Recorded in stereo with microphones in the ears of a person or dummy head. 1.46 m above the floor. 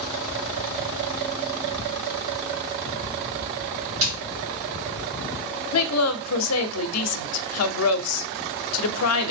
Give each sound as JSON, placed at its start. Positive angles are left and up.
{"t": 4.0, "sound": "a snare drum", "side_deg": -65, "distance_m": 2.5}
{"t": 5.7, "sound": "a woman speaking", "side_deg": 80, "distance_m": 0.6}